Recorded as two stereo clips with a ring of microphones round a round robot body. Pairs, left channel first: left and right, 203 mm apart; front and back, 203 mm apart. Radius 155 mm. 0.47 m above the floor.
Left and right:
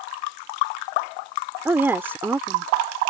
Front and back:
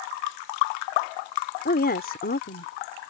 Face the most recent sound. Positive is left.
turn(degrees=-15)